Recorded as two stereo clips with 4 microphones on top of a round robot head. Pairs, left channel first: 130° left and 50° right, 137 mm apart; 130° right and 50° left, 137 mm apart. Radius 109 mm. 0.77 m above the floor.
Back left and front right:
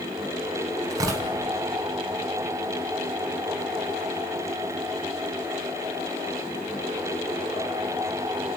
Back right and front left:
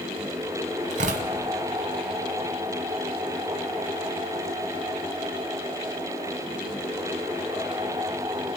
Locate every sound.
0.9 s tearing paper: 15° left, 1.0 m